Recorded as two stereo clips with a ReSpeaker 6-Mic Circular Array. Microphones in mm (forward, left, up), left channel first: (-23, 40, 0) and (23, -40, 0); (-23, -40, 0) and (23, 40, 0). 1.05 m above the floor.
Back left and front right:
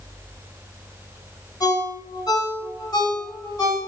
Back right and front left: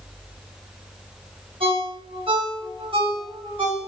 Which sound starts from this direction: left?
A ringtone, at 1.6 s.